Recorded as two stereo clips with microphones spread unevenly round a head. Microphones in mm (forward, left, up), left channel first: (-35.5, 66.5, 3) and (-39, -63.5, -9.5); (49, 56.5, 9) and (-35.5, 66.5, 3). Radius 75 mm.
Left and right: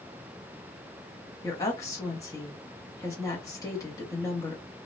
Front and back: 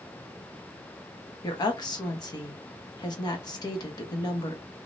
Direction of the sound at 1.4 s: 20° left.